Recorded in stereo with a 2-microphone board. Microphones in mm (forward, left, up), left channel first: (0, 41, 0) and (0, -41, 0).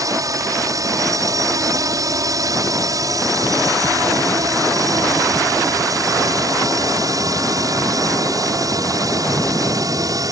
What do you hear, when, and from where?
0.0 s a drone: 45° right (ahead or behind)